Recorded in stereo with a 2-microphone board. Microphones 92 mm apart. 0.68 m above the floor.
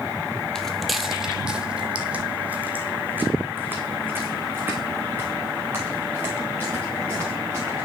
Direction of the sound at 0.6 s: 5° left (ahead or behind).